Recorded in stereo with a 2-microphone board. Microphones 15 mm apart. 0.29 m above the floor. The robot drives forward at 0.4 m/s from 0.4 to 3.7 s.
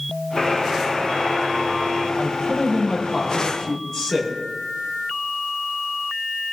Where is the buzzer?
60° left (ahead or behind), 4.5 m; by 2.1 s 65° left (ahead or behind), 4 m.